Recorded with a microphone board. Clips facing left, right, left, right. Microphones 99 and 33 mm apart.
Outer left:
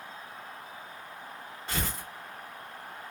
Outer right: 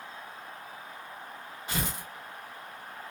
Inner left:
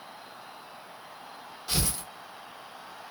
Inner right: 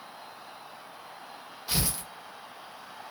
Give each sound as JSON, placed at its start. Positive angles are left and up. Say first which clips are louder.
{"t": 1.7, "sound": "tearing paper", "louder": "outer right 1 dB, even", "side_deg": -15, "distance_m": 1.1}